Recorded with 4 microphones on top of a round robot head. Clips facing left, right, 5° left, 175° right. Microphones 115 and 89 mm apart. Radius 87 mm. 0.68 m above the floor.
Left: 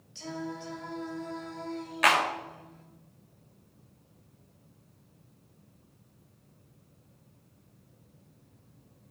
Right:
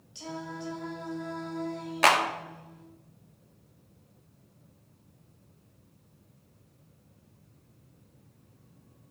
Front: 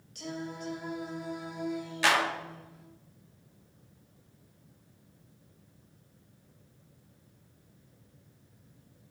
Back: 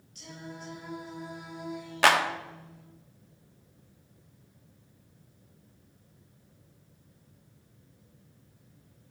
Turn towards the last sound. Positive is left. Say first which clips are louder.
# right 2 dB, back 4 dB
turn(degrees=-145)